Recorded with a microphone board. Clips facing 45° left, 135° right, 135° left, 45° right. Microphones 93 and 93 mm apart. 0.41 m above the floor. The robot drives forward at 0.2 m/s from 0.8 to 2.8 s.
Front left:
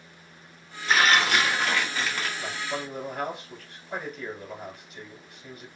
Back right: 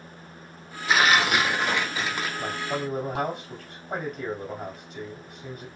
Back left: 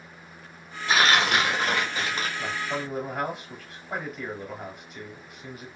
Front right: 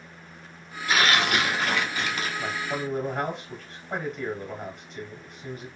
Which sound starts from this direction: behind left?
Tearing paper, at 0.9 s.